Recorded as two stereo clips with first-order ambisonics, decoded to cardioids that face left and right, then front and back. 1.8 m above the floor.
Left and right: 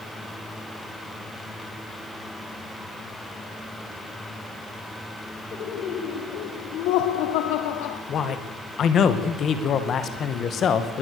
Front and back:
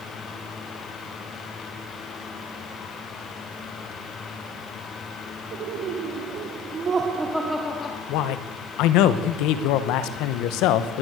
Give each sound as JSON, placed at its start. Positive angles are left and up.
{"t": 5.5, "sound": "laughter", "azimuth_deg": 140, "distance_m": 3.5}
{"t": 8.1, "sound": "a man speaking", "azimuth_deg": 30, "distance_m": 1.8}